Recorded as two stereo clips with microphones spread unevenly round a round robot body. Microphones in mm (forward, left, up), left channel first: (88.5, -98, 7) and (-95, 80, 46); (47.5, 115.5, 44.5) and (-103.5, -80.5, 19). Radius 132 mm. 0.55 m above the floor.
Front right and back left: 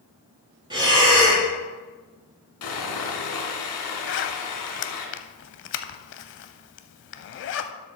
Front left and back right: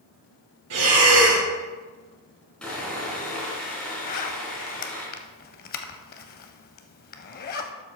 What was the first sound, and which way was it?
Breathing, 150° right.